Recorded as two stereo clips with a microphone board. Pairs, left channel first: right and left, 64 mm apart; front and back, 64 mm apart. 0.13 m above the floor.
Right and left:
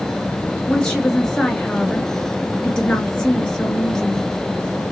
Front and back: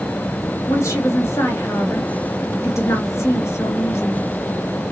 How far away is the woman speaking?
About 2 m.